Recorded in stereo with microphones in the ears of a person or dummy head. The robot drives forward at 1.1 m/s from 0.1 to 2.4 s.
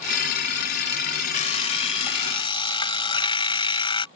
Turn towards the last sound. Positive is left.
turn(degrees=30)  # may be behind; listen again after turning